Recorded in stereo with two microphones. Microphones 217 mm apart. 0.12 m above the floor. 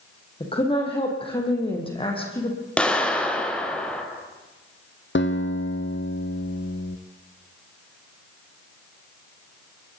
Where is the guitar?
60° left (ahead or behind), 1.8 m.